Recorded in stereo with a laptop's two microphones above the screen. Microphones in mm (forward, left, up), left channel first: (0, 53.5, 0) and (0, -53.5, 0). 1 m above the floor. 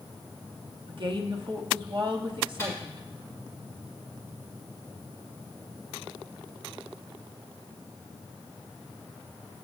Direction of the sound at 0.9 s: 50° right (ahead or behind).